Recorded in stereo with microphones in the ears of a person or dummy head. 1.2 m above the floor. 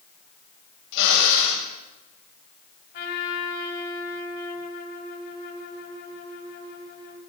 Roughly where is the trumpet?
Left.